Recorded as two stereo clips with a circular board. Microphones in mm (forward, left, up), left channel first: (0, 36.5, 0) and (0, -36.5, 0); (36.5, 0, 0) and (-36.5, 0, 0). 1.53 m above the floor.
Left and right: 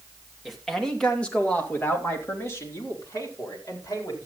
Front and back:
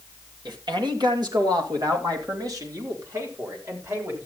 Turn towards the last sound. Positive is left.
turn(degrees=130)